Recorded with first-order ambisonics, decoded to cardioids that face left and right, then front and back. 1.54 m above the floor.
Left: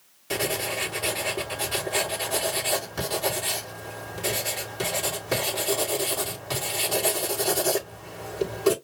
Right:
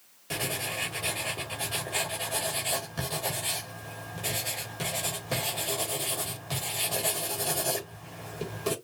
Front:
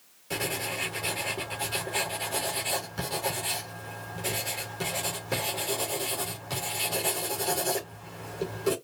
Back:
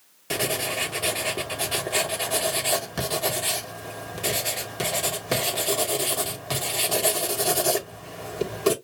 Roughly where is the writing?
Behind.